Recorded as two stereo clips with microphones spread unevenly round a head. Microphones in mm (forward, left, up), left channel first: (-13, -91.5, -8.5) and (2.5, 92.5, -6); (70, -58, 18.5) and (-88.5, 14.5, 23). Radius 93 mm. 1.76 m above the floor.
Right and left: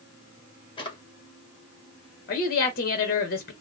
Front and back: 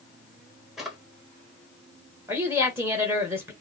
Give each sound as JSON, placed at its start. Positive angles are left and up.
{"t": 0.8, "sound": "a drawer", "azimuth_deg": -125, "distance_m": 1.2}
{"t": 2.3, "sound": "a woman speaking", "azimuth_deg": -130, "distance_m": 1.2}